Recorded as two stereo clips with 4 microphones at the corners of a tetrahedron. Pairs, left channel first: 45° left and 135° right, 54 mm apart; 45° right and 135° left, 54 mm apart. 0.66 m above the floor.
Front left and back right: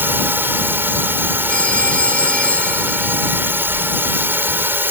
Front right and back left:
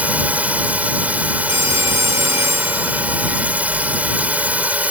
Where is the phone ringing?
115° left.